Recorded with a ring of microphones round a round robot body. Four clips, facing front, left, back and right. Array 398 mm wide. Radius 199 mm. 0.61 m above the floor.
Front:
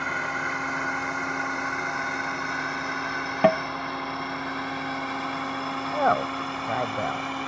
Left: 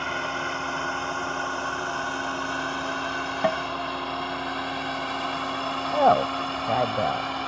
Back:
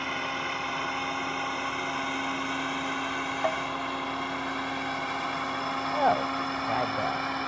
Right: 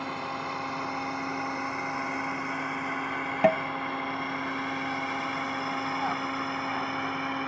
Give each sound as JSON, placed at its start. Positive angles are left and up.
{"t": 0.0, "sound": "a drone", "azimuth_deg": 75}
{"t": 3.4, "sound": "tapping", "azimuth_deg": -10}
{"t": 5.9, "sound": "a woman speaking", "azimuth_deg": 75}